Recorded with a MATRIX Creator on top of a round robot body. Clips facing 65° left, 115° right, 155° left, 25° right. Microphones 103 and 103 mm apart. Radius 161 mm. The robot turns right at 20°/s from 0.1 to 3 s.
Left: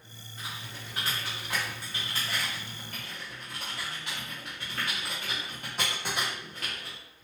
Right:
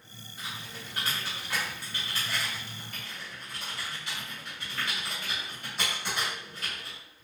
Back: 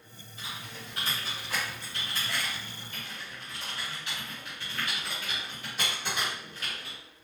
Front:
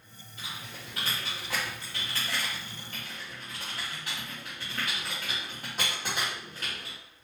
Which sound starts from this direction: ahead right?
Typing on a keyboard, at 0.4 s.